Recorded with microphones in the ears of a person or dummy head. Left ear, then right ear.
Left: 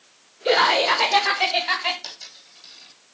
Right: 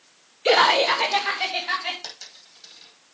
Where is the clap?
I don't hear a clap.